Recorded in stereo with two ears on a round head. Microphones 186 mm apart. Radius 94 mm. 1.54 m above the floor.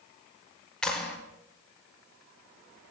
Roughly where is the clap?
Centre.